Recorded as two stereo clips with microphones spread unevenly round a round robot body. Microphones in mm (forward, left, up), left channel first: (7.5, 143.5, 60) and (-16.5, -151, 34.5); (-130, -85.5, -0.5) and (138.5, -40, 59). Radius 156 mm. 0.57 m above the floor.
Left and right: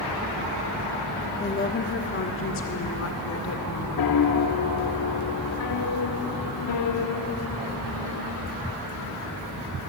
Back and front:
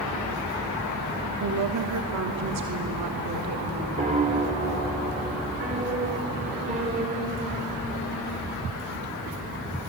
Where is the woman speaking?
25° left, 1.3 m; by 3.9 s 50° left, 3 m.